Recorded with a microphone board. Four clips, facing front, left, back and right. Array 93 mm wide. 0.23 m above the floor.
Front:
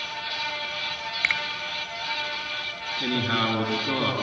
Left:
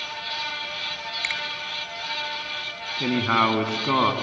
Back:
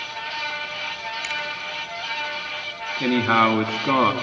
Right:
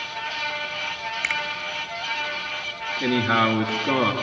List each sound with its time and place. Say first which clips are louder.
1.2 s a finger snap: right 4 dB, front 5 dB; 15° right, 1.3 m
3.0 s a man speaking: right 1 dB, back 8 dB; 155° left, 2.5 m